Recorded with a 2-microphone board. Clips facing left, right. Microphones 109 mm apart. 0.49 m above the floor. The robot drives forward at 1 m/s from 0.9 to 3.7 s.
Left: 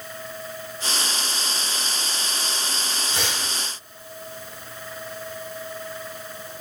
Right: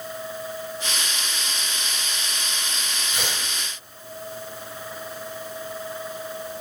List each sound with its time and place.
3.1 s tearing paper: 30° left (ahead or behind), 9 m; by 3.5 s 35° left (ahead or behind), 9 m